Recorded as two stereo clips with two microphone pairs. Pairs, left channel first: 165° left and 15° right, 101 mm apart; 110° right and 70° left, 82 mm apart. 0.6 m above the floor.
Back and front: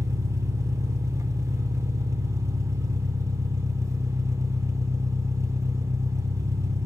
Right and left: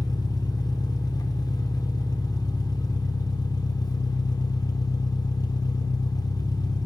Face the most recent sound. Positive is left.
turn(degrees=-75)